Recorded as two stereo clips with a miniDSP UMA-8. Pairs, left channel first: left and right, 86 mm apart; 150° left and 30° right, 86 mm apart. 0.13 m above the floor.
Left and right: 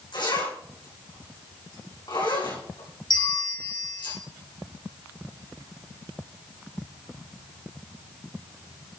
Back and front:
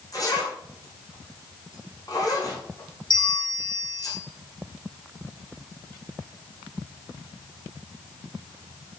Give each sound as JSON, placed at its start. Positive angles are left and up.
{"t": 0.1, "sound": "a zipper", "azimuth_deg": 110, "distance_m": 6.0}
{"t": 3.1, "sound": "a bell", "azimuth_deg": 125, "distance_m": 5.5}